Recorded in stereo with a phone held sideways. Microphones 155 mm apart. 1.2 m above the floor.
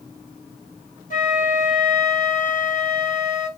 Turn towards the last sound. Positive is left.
turn(degrees=60)  # may be behind; listen again after turning